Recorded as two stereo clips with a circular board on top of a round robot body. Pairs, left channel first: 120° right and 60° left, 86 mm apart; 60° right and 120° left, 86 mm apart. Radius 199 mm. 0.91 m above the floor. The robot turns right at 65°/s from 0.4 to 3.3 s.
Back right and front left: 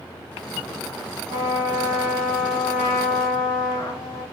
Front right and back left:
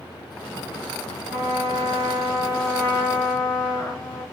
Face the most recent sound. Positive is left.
turn(degrees=-150)